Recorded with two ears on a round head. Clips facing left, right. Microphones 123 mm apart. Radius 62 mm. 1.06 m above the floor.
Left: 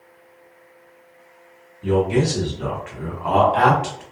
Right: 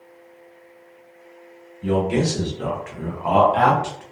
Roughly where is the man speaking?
Right.